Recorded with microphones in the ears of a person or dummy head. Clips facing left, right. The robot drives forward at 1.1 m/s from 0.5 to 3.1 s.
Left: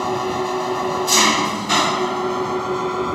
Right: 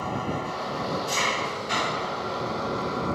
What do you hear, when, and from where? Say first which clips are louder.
0.0 s an engine running: left 8 dB; 80° left; by 3.2 s 60° left (ahead or behind)